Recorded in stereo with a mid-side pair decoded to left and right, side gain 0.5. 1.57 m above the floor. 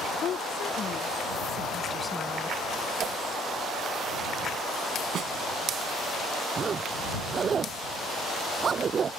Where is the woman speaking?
60° left; by 2.6 s straight ahead.